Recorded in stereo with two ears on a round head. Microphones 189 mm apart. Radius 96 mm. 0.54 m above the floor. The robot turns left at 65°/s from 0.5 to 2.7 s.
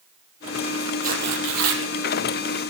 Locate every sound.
1.0 s tearing paper: 35° right, 3.5 m; by 1.8 s 90° right, 3.5 m